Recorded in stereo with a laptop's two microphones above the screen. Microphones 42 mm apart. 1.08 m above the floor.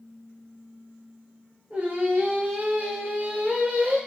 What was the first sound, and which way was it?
Singing, 30° right (ahead or behind).